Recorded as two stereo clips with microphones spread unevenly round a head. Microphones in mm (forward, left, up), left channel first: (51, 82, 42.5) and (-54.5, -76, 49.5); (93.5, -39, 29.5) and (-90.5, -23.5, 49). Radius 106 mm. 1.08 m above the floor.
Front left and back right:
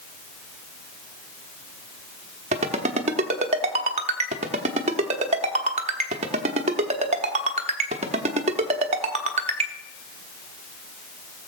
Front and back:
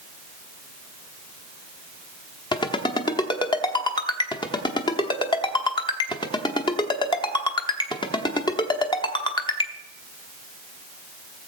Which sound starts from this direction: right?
A ringtone, at 2.5 s.